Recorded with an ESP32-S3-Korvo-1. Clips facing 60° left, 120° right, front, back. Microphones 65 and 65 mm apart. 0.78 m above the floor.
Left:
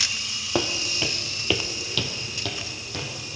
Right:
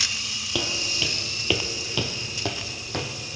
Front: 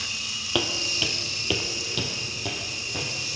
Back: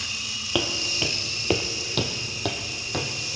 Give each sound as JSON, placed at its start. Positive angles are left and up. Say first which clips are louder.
{"t": 0.6, "sound": "footsteps", "louder": "left 3 dB, back 1 dB", "azimuth_deg": 95, "distance_m": 1.2}